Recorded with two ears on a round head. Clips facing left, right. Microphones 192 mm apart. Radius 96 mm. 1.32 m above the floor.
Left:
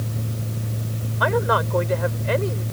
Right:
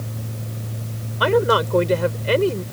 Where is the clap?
I don't hear a clap.